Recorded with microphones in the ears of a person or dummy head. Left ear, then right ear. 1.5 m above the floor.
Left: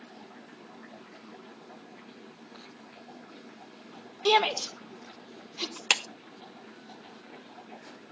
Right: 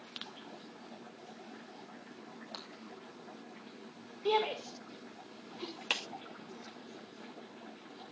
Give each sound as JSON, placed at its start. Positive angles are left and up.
{"t": 2.5, "sound": "breaking glass", "side_deg": -50, "distance_m": 2.0}
{"t": 4.2, "sound": "a shout", "side_deg": 75, "distance_m": 1.4}
{"t": 5.9, "sound": "a clap", "side_deg": 35, "distance_m": 0.6}